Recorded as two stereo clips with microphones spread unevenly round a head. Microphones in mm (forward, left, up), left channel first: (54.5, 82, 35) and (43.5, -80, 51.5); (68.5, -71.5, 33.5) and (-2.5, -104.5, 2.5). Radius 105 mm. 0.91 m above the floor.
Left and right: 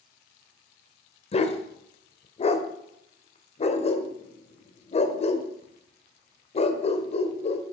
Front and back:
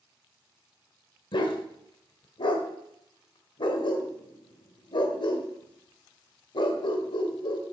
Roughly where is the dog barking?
Ahead left.